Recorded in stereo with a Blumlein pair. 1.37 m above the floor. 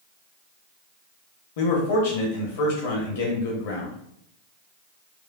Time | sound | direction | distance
1.6 | a man speaking | 55° left | 0.9 m